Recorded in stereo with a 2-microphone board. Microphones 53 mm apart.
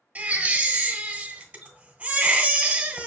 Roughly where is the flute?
I don't hear a flute.